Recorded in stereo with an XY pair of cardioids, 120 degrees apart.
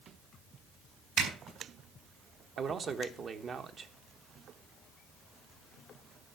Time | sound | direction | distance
1.2 | a zipper | 65° right | 4 m
2.6 | a man speaking | 40° right | 1.4 m